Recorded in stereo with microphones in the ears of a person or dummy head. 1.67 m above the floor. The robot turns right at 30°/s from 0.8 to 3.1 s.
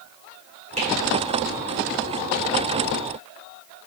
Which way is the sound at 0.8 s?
35° right (ahead or behind).